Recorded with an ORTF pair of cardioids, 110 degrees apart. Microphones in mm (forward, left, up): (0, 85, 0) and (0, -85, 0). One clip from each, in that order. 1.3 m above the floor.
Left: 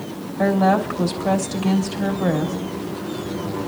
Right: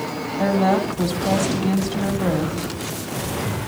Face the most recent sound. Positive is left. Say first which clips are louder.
# left 2 dB
turn(degrees=10)